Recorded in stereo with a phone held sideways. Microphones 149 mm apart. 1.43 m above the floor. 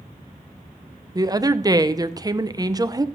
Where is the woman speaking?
25° right (ahead or behind), 0.5 m.